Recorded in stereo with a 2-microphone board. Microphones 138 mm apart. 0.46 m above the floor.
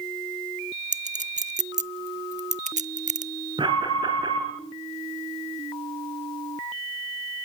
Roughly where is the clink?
Right.